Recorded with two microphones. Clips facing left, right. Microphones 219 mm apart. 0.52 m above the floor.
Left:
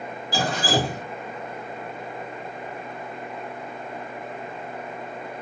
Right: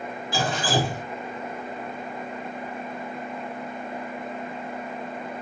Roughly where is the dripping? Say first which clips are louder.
Left 1 dB; left.